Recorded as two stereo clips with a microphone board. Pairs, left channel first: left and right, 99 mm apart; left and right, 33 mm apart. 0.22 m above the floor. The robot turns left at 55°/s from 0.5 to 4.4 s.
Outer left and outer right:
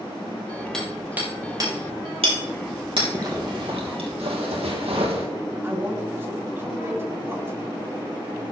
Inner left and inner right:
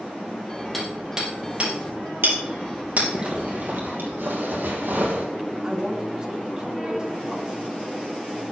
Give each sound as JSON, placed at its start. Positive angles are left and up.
{"t": 0.7, "sound": "hammering", "side_deg": 5, "distance_m": 3.5}
{"t": 3.1, "sound": "a zipper", "azimuth_deg": -35, "distance_m": 2.5}
{"t": 5.6, "sound": "a man speaking", "side_deg": -25, "distance_m": 2.5}